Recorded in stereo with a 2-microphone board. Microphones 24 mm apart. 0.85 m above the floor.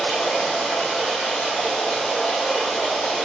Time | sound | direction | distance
0.0 | running water | 65° left (ahead or behind) | 3 m